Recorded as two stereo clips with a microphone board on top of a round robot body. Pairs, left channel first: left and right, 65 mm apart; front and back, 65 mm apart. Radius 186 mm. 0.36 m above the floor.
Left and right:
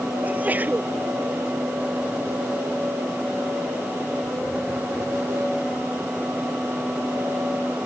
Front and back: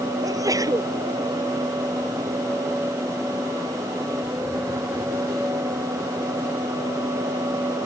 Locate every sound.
0.2 s a sneeze: 155° right